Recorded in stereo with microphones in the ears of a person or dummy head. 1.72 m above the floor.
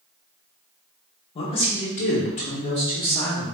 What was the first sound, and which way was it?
A man speaking, 30° left (ahead or behind).